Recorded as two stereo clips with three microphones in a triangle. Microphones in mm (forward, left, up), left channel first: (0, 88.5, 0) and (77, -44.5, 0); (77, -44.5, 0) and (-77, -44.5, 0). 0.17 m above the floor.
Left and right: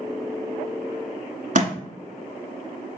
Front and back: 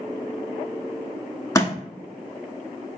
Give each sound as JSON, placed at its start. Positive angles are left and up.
{"t": 1.6, "sound": "a thud", "azimuth_deg": -65, "distance_m": 0.9}